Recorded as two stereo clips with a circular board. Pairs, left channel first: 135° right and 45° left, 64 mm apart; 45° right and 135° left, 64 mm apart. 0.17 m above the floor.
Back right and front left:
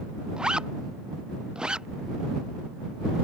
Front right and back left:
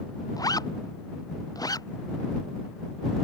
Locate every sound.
0.4 s a zipper: 30° right